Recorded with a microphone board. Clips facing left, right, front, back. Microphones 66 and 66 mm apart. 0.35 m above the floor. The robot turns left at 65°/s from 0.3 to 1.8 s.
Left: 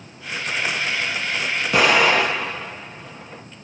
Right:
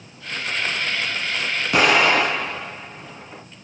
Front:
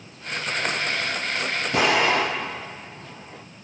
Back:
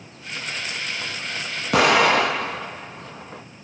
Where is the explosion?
175° right, 1.6 m; by 3.4 s straight behind, 1.6 m.